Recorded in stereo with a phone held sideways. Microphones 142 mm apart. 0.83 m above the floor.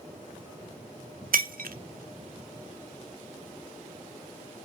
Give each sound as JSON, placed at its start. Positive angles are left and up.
{"t": 1.3, "sound": "breaking glass", "side_deg": -85, "distance_m": 0.6}